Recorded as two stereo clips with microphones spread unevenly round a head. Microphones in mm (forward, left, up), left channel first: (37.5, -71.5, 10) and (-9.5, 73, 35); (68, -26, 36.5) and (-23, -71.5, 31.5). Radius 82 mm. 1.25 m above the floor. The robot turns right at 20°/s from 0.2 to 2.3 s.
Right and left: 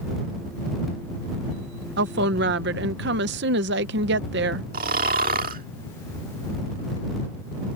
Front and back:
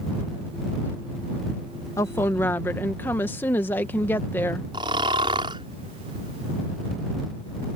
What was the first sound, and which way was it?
A woman speaking, 95° left.